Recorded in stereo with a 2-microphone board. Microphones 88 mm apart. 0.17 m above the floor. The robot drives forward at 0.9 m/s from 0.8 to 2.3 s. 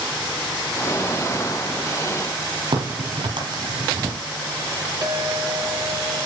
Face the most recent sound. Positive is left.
turn(degrees=-40)  # may be behind; listen again after turning